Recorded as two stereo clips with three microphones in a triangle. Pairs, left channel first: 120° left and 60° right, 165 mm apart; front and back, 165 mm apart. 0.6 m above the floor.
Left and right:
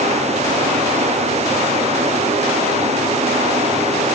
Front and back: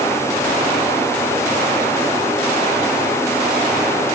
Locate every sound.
Only background noise.